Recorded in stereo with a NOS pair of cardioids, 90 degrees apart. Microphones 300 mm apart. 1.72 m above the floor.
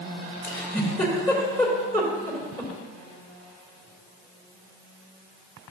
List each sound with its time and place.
0.4 s a giggle: 10° left, 3.5 m